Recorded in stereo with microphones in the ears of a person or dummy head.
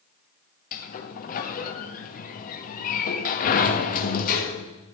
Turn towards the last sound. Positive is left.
turn(degrees=40)  # may be behind; listen again after turning